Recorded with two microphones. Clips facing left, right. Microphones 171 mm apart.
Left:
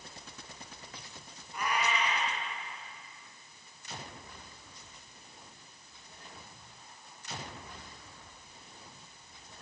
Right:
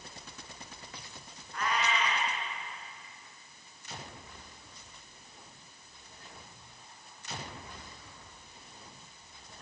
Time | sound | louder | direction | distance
1.5 | a cat meowing | even | 10° left (ahead or behind) | 5 m